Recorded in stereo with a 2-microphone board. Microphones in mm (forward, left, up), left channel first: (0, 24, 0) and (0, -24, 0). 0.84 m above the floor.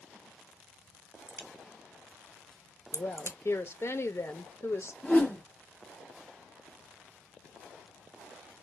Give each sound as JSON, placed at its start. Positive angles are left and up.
{"t": 1.3, "sound": "a crack", "side_deg": 75, "distance_m": 1.1}
{"t": 2.9, "sound": "a woman speaking", "side_deg": 60, "distance_m": 0.7}
{"t": 5.0, "sound": "a whoosh", "side_deg": 25, "distance_m": 1.0}